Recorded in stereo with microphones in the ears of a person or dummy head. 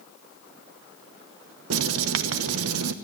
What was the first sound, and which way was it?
Writing, 85° right.